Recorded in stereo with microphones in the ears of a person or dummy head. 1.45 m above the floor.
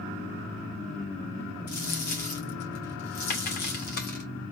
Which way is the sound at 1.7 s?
45° left (ahead or behind).